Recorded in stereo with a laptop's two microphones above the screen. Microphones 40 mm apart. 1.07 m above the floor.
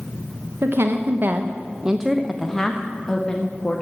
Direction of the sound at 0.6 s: 70° right (ahead or behind).